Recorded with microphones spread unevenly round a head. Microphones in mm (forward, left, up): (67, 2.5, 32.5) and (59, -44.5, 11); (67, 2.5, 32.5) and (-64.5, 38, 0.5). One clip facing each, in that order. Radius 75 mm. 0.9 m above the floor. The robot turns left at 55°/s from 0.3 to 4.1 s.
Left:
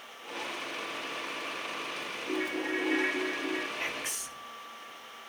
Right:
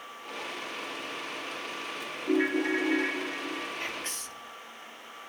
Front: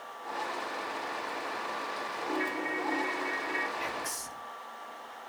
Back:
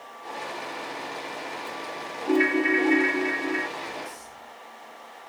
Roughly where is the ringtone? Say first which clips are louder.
Right 7 dB, back 13 dB; behind.